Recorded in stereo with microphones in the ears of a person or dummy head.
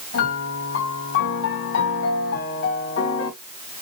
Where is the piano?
65° left (ahead or behind), 3.5 m.